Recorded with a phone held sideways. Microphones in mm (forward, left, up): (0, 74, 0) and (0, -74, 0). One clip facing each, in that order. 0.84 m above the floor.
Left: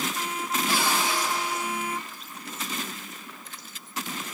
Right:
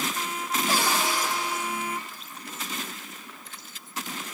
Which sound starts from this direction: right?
A cupboard door, at 0.7 s.